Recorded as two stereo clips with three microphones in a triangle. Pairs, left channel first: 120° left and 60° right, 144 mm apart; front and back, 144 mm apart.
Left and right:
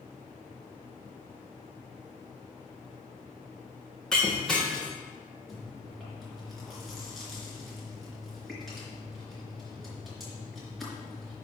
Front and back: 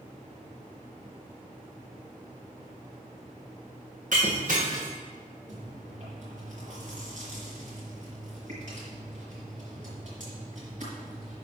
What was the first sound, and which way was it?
Breaking glass, 155° right.